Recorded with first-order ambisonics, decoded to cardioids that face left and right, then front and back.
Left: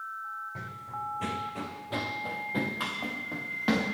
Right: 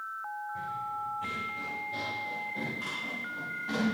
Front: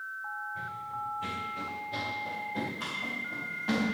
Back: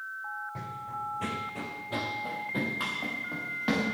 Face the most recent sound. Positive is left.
turn(degrees=120)